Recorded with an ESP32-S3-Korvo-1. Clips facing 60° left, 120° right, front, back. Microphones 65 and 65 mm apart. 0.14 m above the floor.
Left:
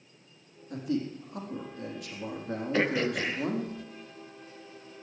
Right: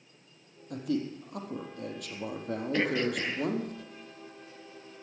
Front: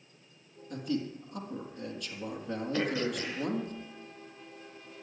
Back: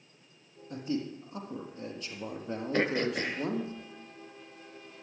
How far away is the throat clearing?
About 1.4 m.